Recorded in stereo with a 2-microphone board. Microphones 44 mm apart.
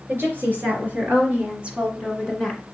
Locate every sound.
0.1 s a woman speaking: 60° right (ahead or behind), 3 m; by 2.6 s 5° right (ahead or behind), 2 m